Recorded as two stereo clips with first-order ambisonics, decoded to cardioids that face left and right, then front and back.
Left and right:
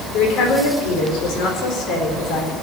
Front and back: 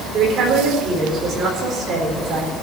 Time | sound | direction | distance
0.1 | a woman speaking | 120° left | 4 m